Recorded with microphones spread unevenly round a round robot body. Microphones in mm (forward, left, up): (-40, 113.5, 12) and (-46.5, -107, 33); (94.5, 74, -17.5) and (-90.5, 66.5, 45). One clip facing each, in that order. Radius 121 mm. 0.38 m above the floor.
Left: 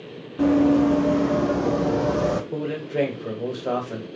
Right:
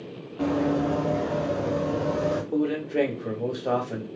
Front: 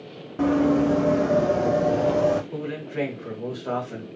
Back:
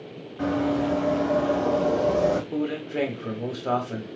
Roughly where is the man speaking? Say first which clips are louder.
Right 2 dB, back 3 dB; behind.